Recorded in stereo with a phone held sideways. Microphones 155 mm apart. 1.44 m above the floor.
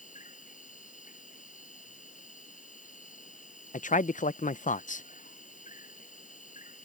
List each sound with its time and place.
0.0 s an insect: 55° left (ahead or behind)
3.7 s a man speaking: 55° left (ahead or behind)